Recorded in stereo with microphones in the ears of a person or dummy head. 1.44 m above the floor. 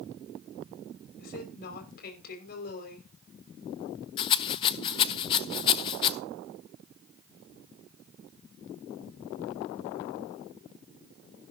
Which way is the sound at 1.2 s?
55° left (ahead or behind).